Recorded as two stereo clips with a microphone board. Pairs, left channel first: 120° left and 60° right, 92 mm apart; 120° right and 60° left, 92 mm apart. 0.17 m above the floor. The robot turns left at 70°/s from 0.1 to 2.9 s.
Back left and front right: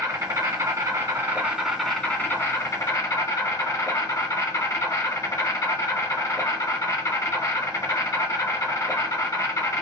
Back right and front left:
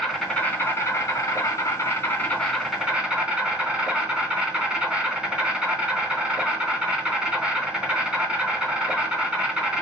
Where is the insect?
30° right, 1.5 m; by 9.8 s 135° left, 1.5 m.